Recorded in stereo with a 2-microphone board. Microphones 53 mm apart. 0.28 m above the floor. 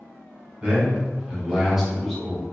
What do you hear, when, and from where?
0.6 s a man speaking: 30° right (ahead or behind), 1.2 m; by 2.5 s 10° left (ahead or behind), 1.3 m